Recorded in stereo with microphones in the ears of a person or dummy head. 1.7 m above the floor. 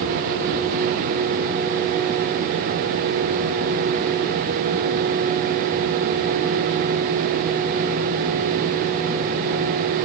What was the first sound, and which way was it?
Only background noise.